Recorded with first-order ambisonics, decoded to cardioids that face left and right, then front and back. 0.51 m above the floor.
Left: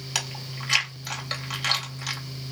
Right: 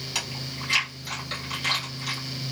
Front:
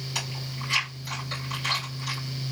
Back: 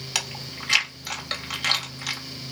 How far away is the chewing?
About 1.7 m.